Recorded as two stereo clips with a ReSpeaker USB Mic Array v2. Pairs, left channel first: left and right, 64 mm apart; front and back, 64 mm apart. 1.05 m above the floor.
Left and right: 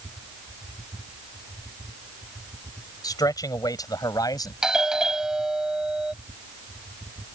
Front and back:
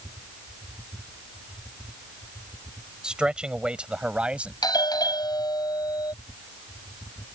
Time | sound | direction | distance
3.0 | a man speaking | 100° left | ?
4.6 | a doorbell | 10° right | ?